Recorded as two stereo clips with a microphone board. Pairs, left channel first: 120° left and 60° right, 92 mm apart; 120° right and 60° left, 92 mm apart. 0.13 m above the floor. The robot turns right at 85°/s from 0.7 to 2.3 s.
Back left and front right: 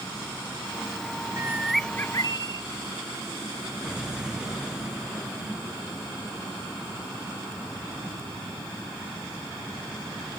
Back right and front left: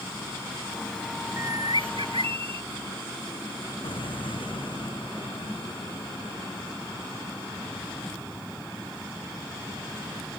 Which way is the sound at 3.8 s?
145° right.